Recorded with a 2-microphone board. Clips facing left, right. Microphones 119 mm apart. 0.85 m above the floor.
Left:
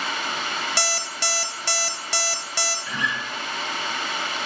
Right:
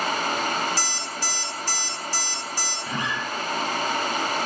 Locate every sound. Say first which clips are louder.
0.8 s an alarm clock: left 2 dB; 80° left, 0.6 m
2.9 s a guitar: right 1 dB; 45° right (ahead or behind), 1.0 m